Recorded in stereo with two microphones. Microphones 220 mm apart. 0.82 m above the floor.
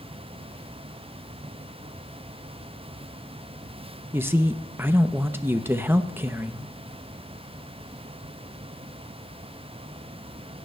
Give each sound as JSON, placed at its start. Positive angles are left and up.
{"t": 4.1, "sound": "a man speaking", "side_deg": -10, "distance_m": 0.5}